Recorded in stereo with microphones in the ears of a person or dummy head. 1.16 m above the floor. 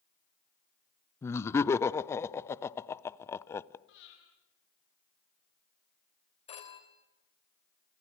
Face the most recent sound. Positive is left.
turn(degrees=25)  # may be behind; listen again after turning